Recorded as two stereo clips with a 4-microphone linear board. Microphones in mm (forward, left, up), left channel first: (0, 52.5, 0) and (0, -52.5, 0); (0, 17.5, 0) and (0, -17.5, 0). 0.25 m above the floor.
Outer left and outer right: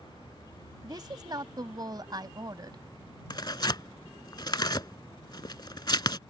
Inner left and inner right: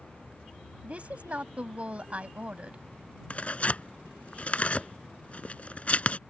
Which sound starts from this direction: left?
Tearing paper, at 3.3 s.